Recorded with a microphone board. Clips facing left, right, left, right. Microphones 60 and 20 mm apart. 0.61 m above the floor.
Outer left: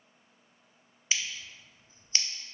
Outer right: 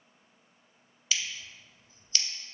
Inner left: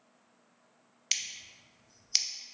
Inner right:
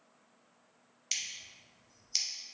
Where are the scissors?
35° left (ahead or behind), 0.5 m.